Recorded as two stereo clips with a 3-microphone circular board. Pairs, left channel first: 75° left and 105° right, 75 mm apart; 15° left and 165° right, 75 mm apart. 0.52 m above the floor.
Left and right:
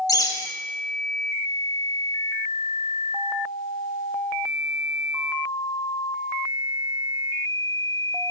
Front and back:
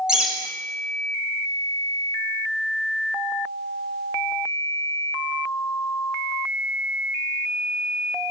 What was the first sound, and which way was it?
A bird, 115° left.